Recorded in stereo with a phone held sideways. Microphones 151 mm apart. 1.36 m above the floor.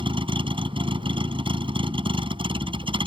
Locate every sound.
0.0 s a vehicle: 35° right (ahead or behind)